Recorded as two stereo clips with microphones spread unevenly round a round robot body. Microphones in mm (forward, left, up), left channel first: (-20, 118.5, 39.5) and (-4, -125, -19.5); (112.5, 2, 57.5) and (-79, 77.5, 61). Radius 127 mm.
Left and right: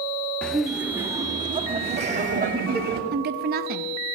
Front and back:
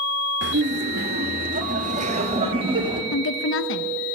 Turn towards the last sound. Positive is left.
turn(degrees=-40)